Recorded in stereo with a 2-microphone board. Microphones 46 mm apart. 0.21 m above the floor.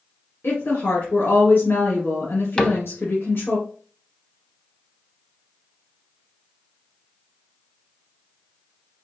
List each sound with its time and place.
0.4 s a woman speaking: 55° left (ahead or behind), 2 m
2.6 s a cupboard door: 20° left (ahead or behind), 0.6 m